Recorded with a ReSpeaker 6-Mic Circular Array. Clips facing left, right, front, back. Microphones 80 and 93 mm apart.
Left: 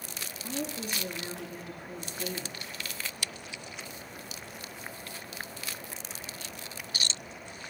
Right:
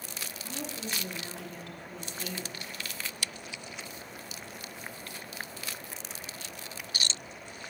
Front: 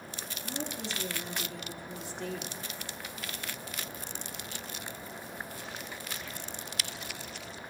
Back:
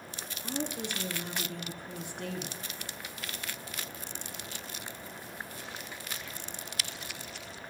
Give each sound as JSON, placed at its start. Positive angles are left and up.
{"t": 0.4, "sound": "a woman speaking", "azimuth_deg": 165, "distance_m": 2.5}